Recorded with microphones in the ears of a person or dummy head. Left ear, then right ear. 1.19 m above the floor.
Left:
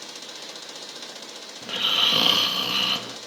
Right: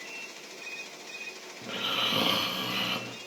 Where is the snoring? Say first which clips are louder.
Left 8 dB; 20° left (ahead or behind), 2 m.